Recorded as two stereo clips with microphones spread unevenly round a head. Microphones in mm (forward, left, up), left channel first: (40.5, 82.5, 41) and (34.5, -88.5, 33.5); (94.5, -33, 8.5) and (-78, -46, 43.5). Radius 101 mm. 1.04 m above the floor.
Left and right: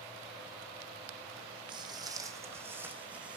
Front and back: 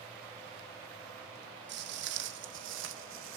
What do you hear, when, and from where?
1.7 s footsteps: 160° right, 3 m; by 3.4 s straight behind, 4 m